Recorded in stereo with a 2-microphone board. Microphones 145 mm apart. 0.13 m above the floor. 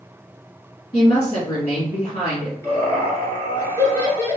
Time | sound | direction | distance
0.9 | a woman speaking | 30° left (ahead or behind) | 2.0 m
2.6 | laughter | 20° left (ahead or behind) | 1.7 m